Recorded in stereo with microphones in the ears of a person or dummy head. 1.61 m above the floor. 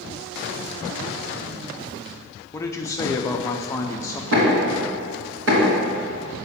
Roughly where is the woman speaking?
Left.